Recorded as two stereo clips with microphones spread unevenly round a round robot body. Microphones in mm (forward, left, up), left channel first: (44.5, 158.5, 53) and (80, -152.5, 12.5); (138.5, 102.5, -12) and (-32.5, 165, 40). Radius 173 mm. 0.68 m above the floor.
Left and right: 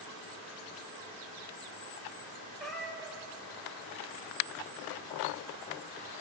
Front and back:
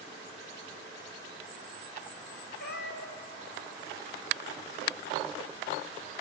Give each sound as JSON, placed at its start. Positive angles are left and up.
{"t": 2.6, "sound": "a cat meowing", "azimuth_deg": 10, "distance_m": 1.1}